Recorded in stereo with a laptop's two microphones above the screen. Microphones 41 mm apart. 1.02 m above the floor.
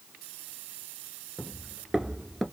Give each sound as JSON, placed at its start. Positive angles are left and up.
{"t": 1.4, "sound": "footsteps", "side_deg": -20, "distance_m": 1.0}